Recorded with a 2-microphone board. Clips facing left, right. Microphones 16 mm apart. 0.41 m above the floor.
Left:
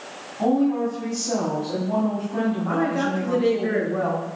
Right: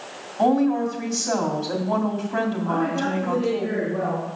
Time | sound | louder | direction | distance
0.4 | a woman speaking | right 1 dB | 50° right (ahead or behind) | 2.5 m
2.6 | a woman speaking | left 1 dB | 20° left (ahead or behind) | 3 m